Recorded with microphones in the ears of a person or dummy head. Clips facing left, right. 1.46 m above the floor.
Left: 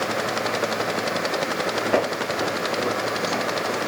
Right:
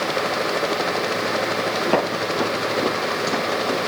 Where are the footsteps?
60° right (ahead or behind), 3 m; by 3.8 s 45° right (ahead or behind), 4 m.